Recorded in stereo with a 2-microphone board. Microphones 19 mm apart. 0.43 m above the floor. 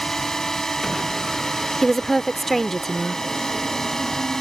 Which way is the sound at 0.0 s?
25° left (ahead or behind).